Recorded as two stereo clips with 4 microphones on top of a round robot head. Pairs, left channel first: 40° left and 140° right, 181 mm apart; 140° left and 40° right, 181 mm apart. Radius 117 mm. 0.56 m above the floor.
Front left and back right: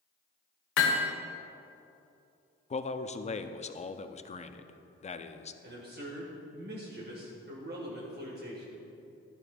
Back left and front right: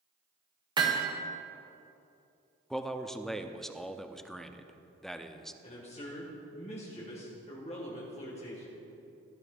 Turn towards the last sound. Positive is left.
turn(degrees=-165)